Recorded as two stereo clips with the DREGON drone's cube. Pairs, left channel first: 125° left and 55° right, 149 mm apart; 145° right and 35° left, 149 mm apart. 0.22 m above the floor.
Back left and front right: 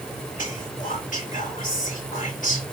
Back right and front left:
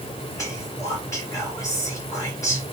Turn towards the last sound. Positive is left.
turn(degrees=145)